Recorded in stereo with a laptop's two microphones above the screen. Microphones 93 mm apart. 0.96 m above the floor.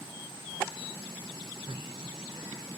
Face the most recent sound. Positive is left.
turn(degrees=-70)  # may be behind; listen again after turning